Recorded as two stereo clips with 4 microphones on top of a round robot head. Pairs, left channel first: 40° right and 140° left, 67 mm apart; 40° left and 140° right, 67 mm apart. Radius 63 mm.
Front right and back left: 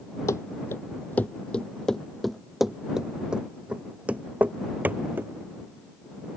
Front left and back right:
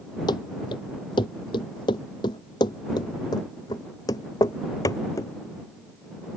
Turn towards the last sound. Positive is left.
turn(degrees=80)